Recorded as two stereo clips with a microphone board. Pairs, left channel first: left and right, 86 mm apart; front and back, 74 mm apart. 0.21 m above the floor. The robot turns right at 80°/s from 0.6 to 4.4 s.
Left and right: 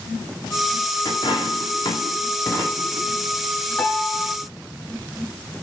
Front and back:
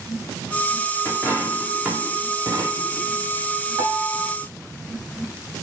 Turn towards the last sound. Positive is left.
turn(degrees=-155)